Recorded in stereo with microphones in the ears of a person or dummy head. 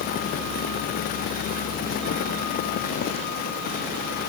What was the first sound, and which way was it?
Only background noise.